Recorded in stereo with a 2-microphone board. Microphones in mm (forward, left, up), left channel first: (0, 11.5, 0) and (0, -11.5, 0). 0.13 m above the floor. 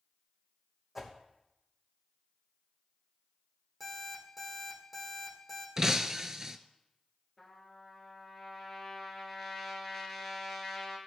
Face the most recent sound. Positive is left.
turn(degrees=5)  # may be behind; listen again after turning